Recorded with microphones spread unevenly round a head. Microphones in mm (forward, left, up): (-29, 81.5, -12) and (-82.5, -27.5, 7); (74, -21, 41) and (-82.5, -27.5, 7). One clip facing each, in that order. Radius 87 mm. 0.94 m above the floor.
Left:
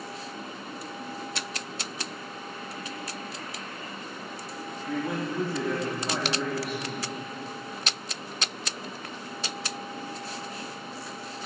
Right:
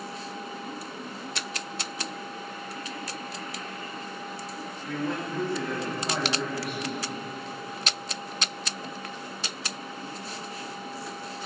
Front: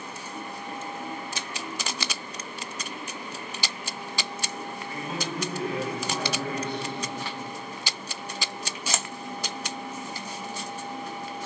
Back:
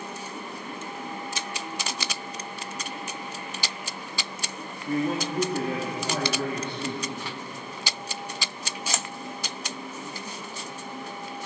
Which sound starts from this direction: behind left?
A man speaking, at 4.9 s.